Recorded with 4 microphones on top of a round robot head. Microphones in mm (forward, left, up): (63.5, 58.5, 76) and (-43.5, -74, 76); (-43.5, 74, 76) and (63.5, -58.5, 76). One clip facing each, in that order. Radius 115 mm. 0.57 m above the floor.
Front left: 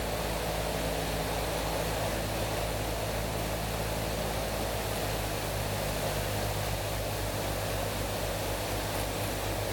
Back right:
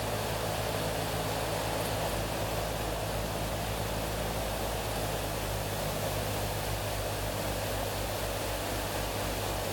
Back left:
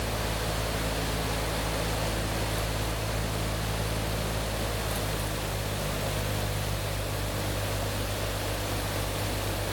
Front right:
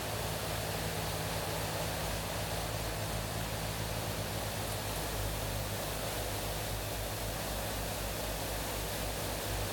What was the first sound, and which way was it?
Only background noise.